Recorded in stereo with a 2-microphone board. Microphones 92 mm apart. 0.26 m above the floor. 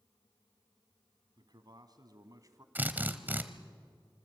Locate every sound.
1.4 s a man speaking: 50° right (ahead or behind), 2.5 m; by 2.6 s 35° right (ahead or behind), 2 m
2.8 s a drill: 20° right (ahead or behind), 1.2 m